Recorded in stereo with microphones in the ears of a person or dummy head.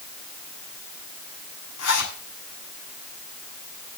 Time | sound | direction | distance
1.8 | a zipper | 85° left | 8 m